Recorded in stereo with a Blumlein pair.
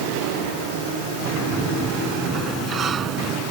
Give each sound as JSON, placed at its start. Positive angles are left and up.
{"t": 1.2, "sound": "a sliding door", "azimuth_deg": -25}